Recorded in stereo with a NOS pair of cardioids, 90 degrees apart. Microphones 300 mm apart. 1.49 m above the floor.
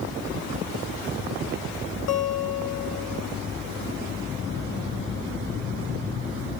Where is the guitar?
55° left, 0.9 m.